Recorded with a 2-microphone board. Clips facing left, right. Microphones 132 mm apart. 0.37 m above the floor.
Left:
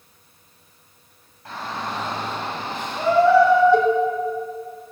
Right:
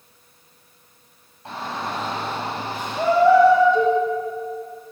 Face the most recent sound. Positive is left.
turn(degrees=80)